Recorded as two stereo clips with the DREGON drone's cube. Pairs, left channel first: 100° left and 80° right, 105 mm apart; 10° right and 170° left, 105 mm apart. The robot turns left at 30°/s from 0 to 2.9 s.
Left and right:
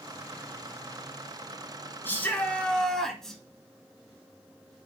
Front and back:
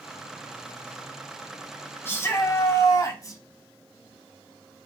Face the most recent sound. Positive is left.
turn(degrees=20)